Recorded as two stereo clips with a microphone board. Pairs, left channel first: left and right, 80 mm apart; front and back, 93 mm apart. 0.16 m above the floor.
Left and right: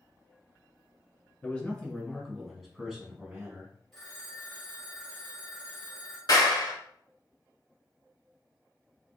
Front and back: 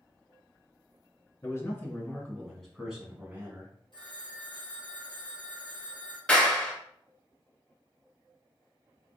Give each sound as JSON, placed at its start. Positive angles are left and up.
{"t": 1.4, "sound": "a man speaking", "azimuth_deg": 25, "distance_m": 1.3}
{"t": 3.9, "sound": "a phone ringing", "azimuth_deg": 5, "distance_m": 2.0}
{"t": 6.3, "sound": "a clap", "azimuth_deg": 75, "distance_m": 1.4}